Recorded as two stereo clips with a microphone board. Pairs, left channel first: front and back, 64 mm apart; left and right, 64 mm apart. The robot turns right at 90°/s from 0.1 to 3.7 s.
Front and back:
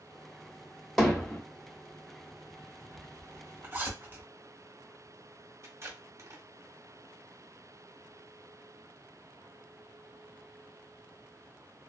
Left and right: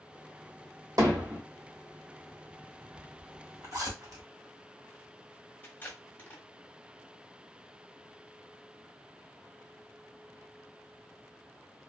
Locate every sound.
1.0 s hammering: 90° right, 1.3 m; by 1.4 s 50° right, 1.3 m
3.0 s a zipper: 170° left, 1.3 m; by 4.2 s 125° right, 1.3 m
5.6 s tape being pulled: 145° left, 0.8 m